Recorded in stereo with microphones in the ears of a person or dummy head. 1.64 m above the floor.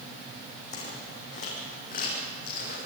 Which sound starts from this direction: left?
Footsteps, at 0.7 s.